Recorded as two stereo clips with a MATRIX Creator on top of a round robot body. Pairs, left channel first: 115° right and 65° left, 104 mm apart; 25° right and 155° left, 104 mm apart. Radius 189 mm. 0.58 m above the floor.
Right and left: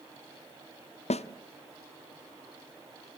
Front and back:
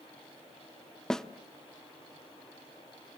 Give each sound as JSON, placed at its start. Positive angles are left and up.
{"t": 1.1, "sound": "a snare drum", "azimuth_deg": -105, "distance_m": 0.8}